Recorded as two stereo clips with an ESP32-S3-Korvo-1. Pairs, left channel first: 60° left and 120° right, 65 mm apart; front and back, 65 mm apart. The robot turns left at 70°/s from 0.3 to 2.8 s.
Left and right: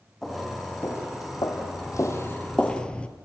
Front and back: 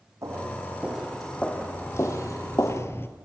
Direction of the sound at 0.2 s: 145° left.